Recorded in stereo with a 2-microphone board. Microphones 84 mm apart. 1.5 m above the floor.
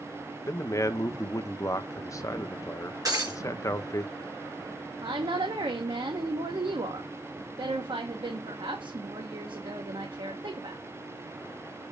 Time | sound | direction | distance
0.5 | a man speaking | 40° left (ahead or behind) | 0.7 m
3.0 | breaking glass | 45° right (ahead or behind) | 3.5 m
5.0 | a woman speaking | 75° right (ahead or behind) | 1.1 m